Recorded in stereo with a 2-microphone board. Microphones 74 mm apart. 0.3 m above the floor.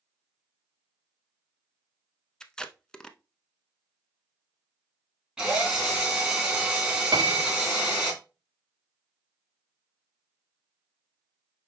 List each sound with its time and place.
2.4 s tape being pulled: 10° left (ahead or behind), 0.6 m
5.4 s a drill: 10° right (ahead or behind), 2.5 m
7.1 s a piano: 65° right (ahead or behind), 0.6 m